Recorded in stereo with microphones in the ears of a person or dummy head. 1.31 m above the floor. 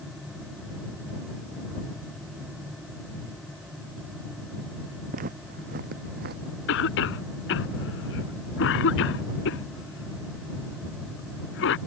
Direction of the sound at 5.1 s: 45° right (ahead or behind).